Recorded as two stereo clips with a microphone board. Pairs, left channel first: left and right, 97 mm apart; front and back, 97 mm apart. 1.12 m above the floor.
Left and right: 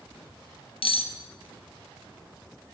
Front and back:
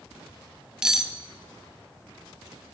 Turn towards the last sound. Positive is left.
turn(degrees=95)